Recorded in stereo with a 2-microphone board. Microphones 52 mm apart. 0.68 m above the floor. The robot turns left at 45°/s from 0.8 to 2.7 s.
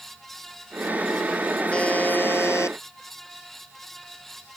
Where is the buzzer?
160° left; by 2.8 s 115° left.